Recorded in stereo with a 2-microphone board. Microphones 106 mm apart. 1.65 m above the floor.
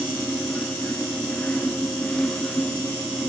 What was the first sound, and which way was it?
Only background noise.